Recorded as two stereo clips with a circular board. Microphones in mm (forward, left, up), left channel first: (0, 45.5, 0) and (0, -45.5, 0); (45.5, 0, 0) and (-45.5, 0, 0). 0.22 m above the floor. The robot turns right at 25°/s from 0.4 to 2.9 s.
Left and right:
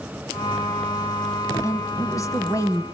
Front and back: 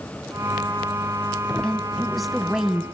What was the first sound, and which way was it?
A woman speaking, 75° left.